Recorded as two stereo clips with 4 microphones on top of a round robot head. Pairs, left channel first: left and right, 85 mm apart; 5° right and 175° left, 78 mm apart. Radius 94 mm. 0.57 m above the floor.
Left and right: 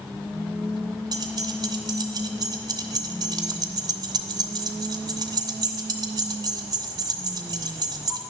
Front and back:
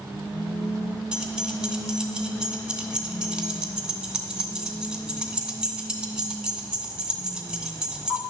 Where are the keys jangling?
105° right, 0.9 m.